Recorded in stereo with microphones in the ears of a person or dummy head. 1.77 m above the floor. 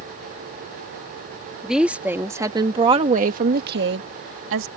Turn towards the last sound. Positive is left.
turn(degrees=-75)  # may be behind; listen again after turning